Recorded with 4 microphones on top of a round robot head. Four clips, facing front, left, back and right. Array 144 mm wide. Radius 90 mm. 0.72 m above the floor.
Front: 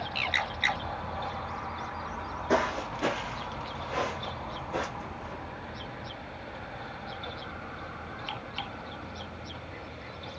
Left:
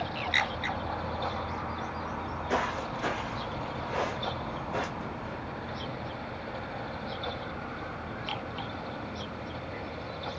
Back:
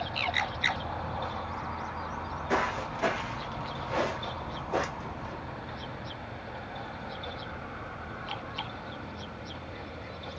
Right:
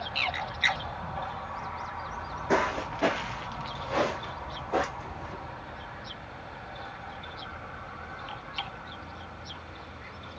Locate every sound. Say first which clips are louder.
2.1 s footsteps: right 4 dB, front 3 dB; 35° right, 1.1 m; by 5.3 s 110° right, 2.5 m